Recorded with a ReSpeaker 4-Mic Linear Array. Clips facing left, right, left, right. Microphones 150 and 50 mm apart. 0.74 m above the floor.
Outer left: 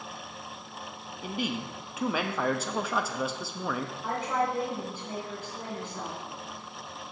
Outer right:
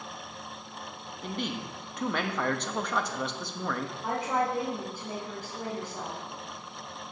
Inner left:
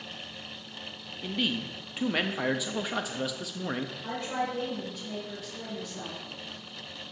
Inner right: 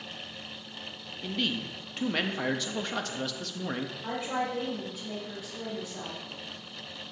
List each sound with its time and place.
1.2 s a man speaking: 5° left (ahead or behind), 0.5 m
4.0 s a woman speaking: 10° right (ahead or behind), 3 m